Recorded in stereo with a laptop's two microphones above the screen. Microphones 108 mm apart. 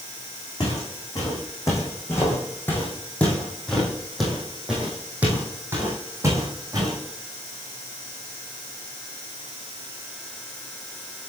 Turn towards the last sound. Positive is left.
turn(degrees=-35)  # may be behind; listen again after turning